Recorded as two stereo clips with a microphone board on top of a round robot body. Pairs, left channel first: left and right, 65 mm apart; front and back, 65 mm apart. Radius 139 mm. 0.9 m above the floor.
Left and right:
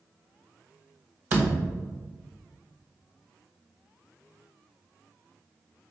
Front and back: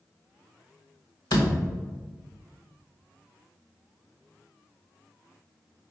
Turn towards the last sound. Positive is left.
turn(degrees=-25)